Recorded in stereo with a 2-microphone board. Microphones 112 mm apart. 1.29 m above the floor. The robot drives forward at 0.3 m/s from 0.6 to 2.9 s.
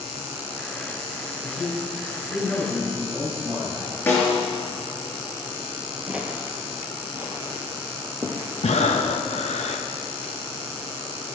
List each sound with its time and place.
1.4 s a man speaking: 15° right (ahead or behind), 6 m
4.1 s a snare drum: 15° left (ahead or behind), 5 m
6.1 s footsteps: 10° right (ahead or behind), 1.4 m; by 8.5 s 25° right (ahead or behind), 3 m
8.6 s breathing: 80° left, 1.1 m